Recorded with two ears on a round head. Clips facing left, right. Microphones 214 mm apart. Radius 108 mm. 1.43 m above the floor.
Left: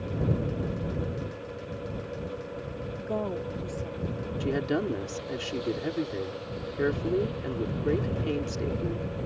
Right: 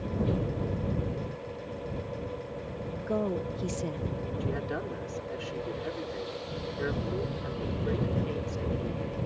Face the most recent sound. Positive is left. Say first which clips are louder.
# left 9 dB
turn(degrees=55)  # may be behind; listen again after turning